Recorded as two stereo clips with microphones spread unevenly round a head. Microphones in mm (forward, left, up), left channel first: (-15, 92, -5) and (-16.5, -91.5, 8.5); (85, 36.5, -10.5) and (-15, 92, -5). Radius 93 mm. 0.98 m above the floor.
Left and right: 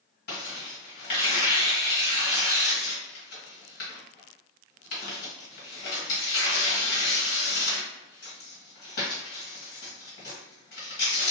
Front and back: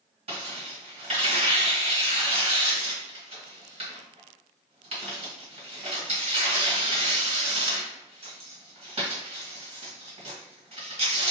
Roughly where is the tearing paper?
Behind left.